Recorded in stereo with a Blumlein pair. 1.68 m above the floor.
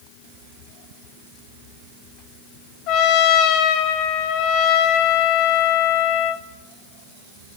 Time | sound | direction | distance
2.9 | a trumpet | 40° left | 3 m